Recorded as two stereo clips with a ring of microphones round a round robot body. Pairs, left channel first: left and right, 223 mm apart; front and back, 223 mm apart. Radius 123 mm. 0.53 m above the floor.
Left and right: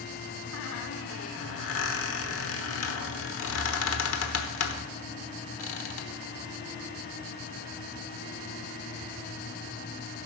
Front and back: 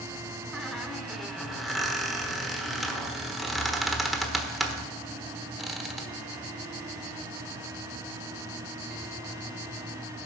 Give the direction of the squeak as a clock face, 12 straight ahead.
9 o'clock.